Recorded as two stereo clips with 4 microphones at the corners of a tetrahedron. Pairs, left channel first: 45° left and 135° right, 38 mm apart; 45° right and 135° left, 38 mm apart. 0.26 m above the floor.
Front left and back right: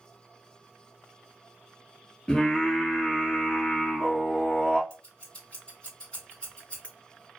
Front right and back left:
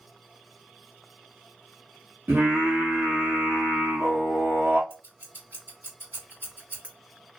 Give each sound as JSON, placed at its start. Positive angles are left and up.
{"t": 2.3, "sound": "singing", "azimuth_deg": 115, "distance_m": 1.4}
{"t": 4.9, "sound": "scissors", "azimuth_deg": 110, "distance_m": 2.0}